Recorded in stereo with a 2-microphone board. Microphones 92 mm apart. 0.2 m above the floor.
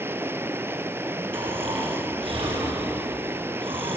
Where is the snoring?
75° right (ahead or behind), 5 m.